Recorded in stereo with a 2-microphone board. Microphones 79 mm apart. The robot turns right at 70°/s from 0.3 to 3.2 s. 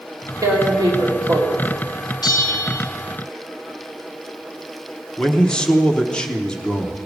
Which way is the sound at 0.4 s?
130° right.